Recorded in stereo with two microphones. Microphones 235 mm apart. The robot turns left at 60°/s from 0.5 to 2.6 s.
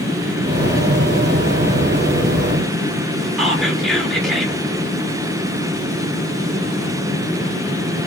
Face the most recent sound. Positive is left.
turn(degrees=0)  # may be behind; listen again after turning